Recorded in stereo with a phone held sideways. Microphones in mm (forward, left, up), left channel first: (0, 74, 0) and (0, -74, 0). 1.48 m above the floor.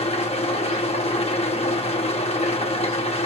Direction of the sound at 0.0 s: 45° left (ahead or behind).